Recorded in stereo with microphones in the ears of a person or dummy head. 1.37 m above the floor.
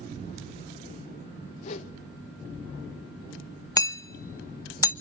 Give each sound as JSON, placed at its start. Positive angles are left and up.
{"t": 1.6, "sound": "a whoosh", "side_deg": 35, "distance_m": 1.7}
{"t": 3.8, "sound": "hammering", "side_deg": 25, "distance_m": 0.8}